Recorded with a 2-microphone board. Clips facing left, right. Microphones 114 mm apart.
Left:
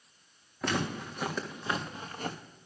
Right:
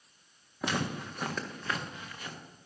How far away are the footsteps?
About 2 m.